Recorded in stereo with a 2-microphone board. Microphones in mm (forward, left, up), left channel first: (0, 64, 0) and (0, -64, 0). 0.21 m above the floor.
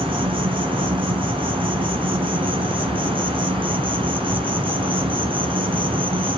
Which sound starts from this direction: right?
An insect, at 0.0 s.